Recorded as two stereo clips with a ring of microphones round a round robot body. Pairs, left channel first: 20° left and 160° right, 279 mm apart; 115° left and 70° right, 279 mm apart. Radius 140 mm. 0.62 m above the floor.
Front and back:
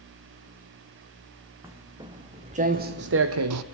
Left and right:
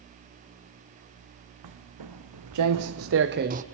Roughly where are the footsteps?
Right.